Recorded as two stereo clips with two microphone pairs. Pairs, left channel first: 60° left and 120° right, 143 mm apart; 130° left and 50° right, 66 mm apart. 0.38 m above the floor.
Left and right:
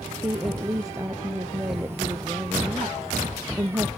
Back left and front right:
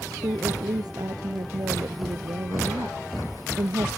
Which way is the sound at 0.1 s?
50° right.